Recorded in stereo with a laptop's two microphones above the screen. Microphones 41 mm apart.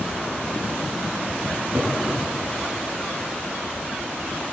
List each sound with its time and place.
1.5 s a cupboard door: 50° right (ahead or behind), 8.5 m